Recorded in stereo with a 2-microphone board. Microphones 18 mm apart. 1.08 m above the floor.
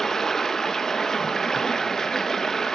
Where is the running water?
20° left (ahead or behind), 1.2 m.